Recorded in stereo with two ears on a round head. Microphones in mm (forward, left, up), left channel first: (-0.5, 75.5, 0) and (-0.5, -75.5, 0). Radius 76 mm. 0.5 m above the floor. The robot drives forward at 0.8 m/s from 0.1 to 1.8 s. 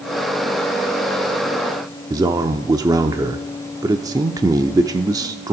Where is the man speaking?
20° right (ahead or behind), 0.8 m.